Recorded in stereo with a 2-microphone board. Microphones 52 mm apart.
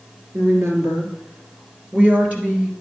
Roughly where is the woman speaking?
Right.